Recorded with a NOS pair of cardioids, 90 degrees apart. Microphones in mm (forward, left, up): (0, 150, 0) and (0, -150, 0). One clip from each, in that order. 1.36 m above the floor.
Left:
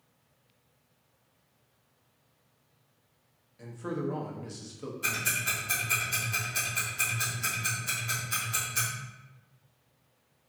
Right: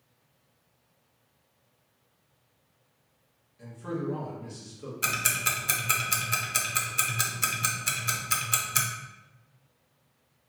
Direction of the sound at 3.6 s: 25° left.